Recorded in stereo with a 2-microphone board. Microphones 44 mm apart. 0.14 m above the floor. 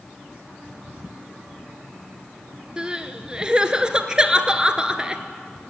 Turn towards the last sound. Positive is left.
turn(degrees=-20)  # may be behind; listen again after turning